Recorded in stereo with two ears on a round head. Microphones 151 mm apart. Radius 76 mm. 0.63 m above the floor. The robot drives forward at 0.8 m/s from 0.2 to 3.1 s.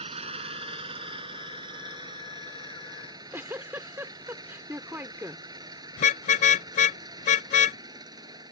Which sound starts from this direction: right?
An engine running, at 0.0 s.